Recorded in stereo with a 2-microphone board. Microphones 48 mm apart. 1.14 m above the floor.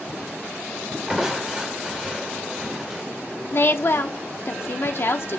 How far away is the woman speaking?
About 0.6 m.